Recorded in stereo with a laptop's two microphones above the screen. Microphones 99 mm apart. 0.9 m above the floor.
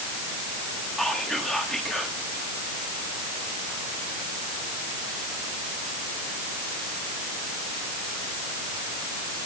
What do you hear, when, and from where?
1.0 s whispering: 5° left (ahead or behind), 1.2 m